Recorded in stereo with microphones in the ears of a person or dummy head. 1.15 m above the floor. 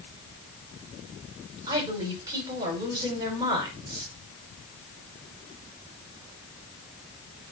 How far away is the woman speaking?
About 5 m.